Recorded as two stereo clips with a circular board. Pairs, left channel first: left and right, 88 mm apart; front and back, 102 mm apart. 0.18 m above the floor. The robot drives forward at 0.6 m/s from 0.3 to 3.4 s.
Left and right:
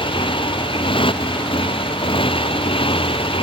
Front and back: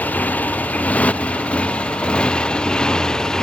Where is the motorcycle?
75° left; by 3.4 s 85° left.